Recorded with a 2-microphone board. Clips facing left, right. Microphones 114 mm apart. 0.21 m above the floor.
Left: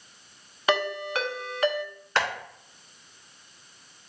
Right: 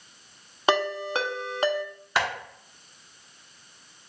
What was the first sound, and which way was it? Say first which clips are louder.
A ringtone: right 2 dB; 25° right (ahead or behind).